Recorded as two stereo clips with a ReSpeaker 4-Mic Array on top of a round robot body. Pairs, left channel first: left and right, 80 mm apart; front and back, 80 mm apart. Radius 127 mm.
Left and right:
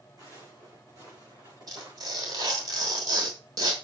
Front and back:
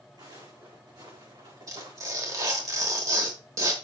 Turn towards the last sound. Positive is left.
turn(degrees=-130)